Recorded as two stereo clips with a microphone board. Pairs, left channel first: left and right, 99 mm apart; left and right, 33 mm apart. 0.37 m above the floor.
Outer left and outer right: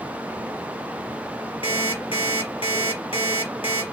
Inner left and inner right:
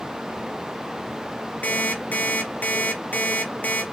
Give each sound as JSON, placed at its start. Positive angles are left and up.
{"t": 1.6, "sound": "an alarm clock", "side_deg": 70, "distance_m": 3.0}